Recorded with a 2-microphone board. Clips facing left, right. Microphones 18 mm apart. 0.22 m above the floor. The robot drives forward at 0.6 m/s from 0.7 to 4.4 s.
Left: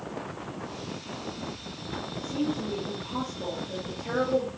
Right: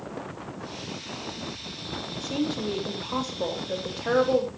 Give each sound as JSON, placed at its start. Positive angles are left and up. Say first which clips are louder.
{"t": 2.1, "sound": "a woman speaking", "louder": "right 1 dB", "side_deg": -70, "distance_m": 7.5}